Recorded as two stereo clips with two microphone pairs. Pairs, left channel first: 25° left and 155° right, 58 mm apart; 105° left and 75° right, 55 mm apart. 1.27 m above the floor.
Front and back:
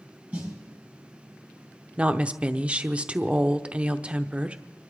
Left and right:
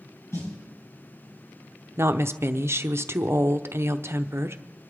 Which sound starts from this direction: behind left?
A snare drum, at 0.3 s.